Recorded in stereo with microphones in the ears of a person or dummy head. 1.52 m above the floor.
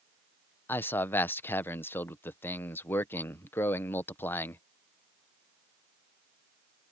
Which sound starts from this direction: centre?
A man speaking, at 0.7 s.